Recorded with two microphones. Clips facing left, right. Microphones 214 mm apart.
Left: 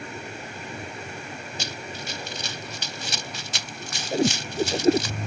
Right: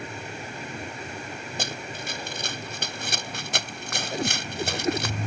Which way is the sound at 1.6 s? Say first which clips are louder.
Right 3 dB; 50° right (ahead or behind).